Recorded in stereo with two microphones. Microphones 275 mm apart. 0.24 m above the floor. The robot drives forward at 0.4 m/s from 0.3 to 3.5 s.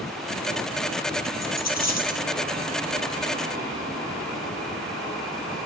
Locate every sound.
1.4 s a dropped coin: 70° left (ahead or behind), 3.5 m; by 2.2 s 65° left (ahead or behind), 3.5 m